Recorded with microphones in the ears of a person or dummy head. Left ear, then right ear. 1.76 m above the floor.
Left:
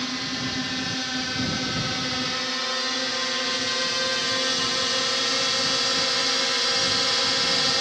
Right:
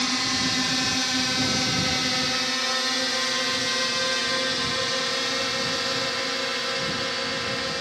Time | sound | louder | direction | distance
0.0 | a drone | right 4 dB | 20° right (ahead or behind) | ?